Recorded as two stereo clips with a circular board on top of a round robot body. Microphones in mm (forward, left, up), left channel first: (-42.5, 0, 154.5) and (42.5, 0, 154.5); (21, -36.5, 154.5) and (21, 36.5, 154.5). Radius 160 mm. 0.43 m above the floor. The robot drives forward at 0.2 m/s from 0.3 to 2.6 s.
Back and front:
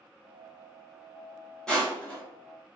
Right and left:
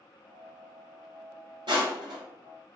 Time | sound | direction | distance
1.7 | crushing | 95° left | 1.9 m